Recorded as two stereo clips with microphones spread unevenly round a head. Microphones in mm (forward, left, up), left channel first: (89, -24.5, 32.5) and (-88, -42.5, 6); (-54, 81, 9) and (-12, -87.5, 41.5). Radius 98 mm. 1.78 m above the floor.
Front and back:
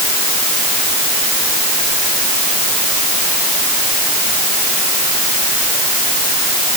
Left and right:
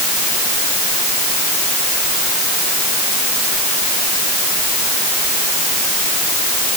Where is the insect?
I don't hear an insect.